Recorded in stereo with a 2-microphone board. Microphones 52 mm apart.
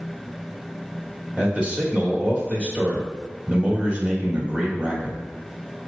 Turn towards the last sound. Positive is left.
turn(degrees=-20)  # may be behind; listen again after turning